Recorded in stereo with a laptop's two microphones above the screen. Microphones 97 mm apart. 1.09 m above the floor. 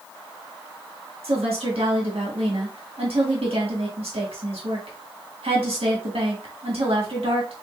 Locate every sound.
1.2 s a woman speaking: 85° right, 1.7 m